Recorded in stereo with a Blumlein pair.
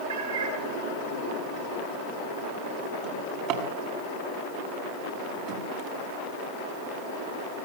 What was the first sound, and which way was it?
A cat meowing, 60° right.